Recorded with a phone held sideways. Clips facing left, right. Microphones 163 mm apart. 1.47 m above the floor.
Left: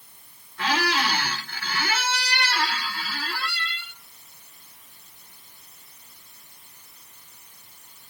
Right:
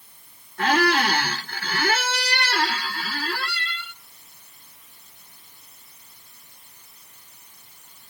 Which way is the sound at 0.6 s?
55° right (ahead or behind).